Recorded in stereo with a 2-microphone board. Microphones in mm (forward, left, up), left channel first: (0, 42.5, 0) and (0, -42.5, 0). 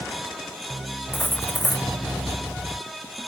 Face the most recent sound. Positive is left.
turn(degrees=25)  # may be behind; listen again after turning